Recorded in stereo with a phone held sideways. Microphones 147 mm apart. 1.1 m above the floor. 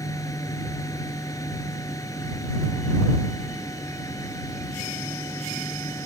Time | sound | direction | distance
0.0 | a fan | 25° left (ahead or behind) | ?